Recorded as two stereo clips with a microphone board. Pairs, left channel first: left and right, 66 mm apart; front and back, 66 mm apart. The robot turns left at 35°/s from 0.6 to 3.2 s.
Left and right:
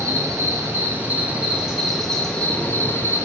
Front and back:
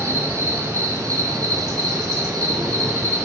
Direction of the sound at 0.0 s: 135° right.